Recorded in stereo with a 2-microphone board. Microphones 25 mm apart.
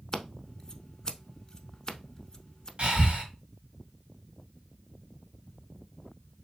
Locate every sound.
0.1 s scissors: 30° left (ahead or behind), 0.7 m
2.8 s breathing: 45° right (ahead or behind), 2.5 m